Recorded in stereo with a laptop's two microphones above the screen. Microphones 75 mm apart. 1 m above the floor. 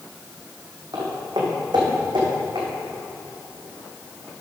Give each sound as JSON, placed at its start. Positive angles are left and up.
{"t": 0.9, "sound": "footsteps", "side_deg": -70, "distance_m": 3.0}